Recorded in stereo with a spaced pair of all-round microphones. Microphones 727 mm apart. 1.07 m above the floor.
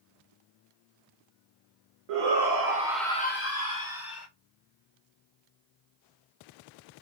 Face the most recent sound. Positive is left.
turn(degrees=35)  # may be behind; listen again after turning